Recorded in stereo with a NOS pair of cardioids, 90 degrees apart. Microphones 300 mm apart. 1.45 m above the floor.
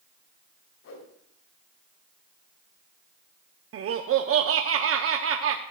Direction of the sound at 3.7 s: 50° right.